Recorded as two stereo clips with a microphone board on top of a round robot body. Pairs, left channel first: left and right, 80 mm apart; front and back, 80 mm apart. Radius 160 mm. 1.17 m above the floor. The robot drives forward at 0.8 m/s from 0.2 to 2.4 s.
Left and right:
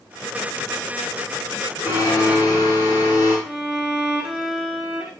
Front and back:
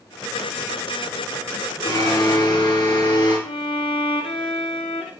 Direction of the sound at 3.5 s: 15° right.